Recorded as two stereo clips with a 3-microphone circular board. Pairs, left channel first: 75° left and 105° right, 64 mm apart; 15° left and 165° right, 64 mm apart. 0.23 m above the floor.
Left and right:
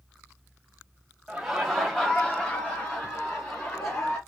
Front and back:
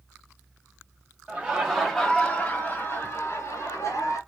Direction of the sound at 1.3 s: 170° right.